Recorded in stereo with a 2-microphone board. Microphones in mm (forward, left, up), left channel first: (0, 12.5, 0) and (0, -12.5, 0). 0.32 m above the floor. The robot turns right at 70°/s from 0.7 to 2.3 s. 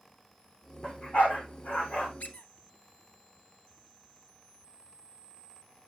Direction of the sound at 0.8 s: 20° left (ahead or behind).